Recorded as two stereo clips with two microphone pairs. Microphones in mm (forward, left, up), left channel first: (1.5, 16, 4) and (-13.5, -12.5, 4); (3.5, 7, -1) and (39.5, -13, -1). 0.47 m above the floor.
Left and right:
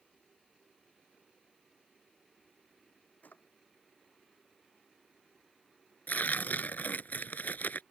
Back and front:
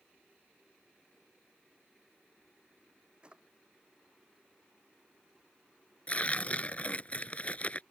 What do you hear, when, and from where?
3.2 s a drawer: 35° left
6.1 s tearing paper: 95° left